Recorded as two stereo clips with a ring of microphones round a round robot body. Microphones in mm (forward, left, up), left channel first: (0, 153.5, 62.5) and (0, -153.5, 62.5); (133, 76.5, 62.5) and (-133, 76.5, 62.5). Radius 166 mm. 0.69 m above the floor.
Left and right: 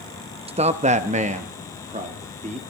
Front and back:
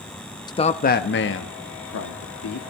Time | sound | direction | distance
0.5 | a man speaking | 50° right | 0.5 m